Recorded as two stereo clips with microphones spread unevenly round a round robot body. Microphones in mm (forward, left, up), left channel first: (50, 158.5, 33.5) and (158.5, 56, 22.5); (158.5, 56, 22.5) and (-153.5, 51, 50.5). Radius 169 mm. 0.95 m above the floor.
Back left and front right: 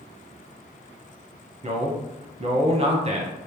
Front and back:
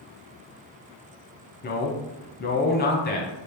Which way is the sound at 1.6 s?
40° right.